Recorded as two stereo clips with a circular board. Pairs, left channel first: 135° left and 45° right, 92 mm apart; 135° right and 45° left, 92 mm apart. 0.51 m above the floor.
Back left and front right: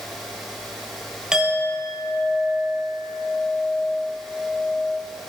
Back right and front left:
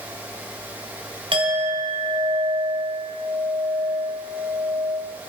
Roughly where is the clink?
Ahead left.